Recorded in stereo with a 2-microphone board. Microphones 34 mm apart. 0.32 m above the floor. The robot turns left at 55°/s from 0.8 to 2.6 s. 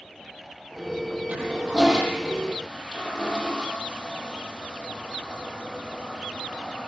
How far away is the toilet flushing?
About 8.5 m.